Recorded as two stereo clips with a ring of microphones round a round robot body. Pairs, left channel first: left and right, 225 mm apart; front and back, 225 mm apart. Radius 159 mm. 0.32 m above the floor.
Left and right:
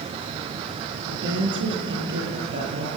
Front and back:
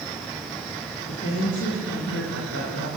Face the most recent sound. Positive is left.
turn(degrees=-55)